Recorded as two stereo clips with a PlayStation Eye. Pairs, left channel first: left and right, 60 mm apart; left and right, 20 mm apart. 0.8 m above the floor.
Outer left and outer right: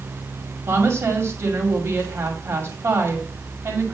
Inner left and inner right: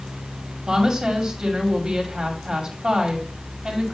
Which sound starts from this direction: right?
A woman speaking, at 0.7 s.